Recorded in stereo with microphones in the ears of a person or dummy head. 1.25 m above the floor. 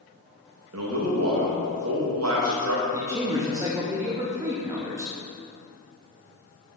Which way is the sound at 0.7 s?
80° right.